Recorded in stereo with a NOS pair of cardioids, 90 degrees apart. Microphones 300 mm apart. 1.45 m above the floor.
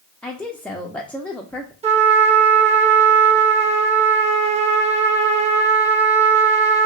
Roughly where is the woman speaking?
Ahead.